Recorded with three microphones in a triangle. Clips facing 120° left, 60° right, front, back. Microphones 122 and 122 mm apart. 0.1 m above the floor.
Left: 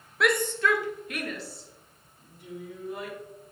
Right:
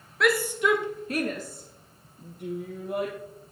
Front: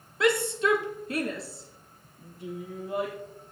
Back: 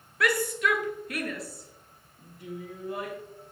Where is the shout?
35° left, 1.2 m; by 3.1 s 65° right, 3 m.